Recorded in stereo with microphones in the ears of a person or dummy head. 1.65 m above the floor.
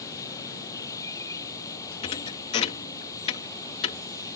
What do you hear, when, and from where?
0.0 s running water: 15° left (ahead or behind)
2.0 s a thud: 30° left (ahead or behind)